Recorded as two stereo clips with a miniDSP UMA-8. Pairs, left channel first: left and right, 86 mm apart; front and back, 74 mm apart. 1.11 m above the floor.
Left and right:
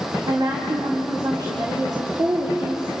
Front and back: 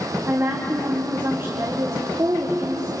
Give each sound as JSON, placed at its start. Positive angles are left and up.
{"t": 0.3, "sound": "a woman speaking", "azimuth_deg": -125, "distance_m": 3.0}